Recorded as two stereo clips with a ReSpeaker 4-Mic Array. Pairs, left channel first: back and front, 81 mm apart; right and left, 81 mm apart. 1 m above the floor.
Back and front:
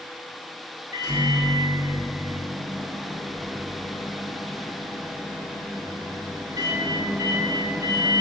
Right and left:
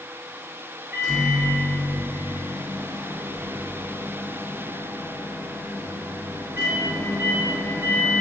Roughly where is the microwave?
Ahead left.